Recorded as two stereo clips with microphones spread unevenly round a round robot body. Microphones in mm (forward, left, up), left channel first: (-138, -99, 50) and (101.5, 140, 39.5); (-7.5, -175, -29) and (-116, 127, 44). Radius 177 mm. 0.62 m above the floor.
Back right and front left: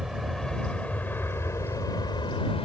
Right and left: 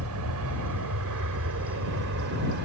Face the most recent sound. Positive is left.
turn(degrees=155)